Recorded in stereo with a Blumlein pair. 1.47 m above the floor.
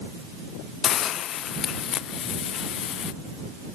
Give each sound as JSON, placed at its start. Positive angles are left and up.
{"t": 0.8, "sound": "a hiss", "azimuth_deg": 30}